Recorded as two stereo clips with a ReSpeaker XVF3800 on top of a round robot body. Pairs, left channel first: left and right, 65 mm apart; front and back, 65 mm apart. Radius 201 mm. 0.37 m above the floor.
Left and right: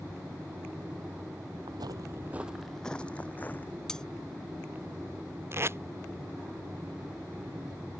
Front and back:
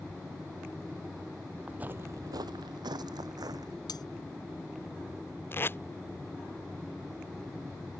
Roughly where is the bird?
No bird in this recording.